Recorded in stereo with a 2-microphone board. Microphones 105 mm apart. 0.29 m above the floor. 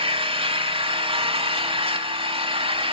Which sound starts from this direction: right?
An engine running, at 0.0 s.